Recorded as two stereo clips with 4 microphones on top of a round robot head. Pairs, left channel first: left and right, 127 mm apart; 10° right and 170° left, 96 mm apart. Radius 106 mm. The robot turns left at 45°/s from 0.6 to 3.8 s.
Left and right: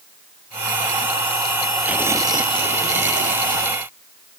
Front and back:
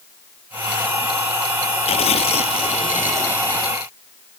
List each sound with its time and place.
1.9 s tearing paper: 10° right; by 3.7 s 95° right